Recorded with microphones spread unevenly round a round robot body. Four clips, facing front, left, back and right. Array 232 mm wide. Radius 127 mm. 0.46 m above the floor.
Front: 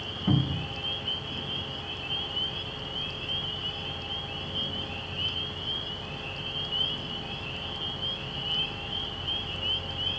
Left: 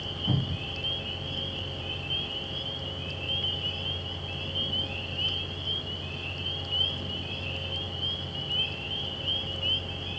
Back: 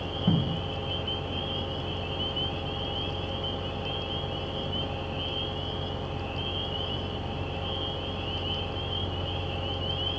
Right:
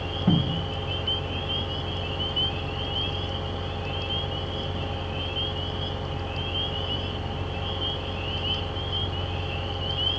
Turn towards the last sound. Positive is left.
turn(degrees=-135)